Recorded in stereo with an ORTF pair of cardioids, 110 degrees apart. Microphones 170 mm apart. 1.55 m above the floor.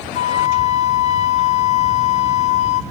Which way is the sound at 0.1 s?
40° left.